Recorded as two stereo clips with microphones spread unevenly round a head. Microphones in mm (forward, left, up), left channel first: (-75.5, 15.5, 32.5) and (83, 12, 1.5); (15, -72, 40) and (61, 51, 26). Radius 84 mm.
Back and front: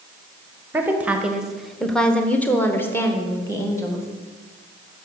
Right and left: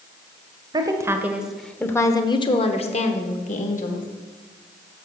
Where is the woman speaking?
55° left, 0.9 m; by 4.1 s 105° right, 1.5 m.